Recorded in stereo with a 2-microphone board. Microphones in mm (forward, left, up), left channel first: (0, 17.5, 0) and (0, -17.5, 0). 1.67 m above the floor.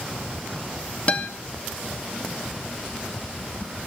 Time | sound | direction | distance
1.1 | a guitar | 35° left (ahead or behind) | 2 m